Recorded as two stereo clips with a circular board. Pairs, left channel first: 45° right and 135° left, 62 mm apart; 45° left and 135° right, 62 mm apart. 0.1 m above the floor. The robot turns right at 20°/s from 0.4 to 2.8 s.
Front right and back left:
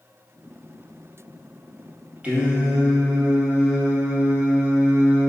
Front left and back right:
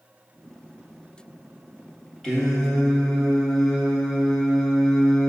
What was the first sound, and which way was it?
Singing, 110° left.